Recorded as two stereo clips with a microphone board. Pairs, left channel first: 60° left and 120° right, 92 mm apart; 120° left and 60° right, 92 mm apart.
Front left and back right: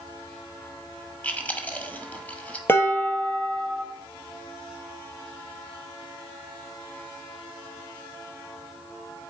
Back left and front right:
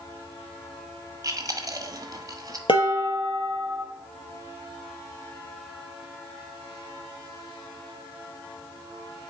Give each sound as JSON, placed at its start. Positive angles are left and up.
{"t": 1.2, "sound": "chewing", "azimuth_deg": -10, "distance_m": 1.1}
{"t": 2.7, "sound": "dishes clattering", "azimuth_deg": 120, "distance_m": 1.5}